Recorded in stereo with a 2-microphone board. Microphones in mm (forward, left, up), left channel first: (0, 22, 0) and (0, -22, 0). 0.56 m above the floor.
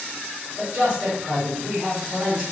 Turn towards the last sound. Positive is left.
turn(degrees=-25)  # may be behind; listen again after turning